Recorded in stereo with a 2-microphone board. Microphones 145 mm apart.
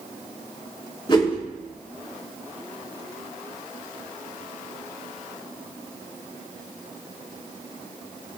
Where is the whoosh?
35° left (ahead or behind), 3.5 m.